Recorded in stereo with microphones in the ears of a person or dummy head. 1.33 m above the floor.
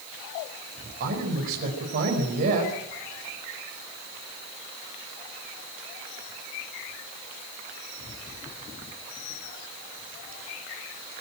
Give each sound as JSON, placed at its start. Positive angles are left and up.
{"t": 1.0, "sound": "a man speaking", "side_deg": -45, "distance_m": 5.5}